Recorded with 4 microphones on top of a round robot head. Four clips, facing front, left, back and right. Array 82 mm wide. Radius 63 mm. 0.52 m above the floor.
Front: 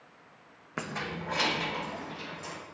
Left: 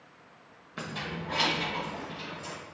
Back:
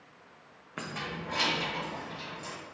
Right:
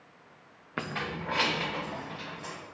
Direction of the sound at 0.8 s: 60° right.